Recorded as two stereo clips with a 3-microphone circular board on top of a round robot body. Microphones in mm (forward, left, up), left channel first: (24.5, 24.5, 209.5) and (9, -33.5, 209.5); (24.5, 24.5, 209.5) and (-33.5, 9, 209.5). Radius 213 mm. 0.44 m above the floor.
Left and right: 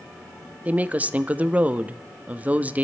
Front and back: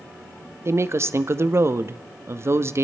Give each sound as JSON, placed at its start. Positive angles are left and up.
{"t": 0.7, "sound": "a woman speaking", "azimuth_deg": -160, "distance_m": 0.9}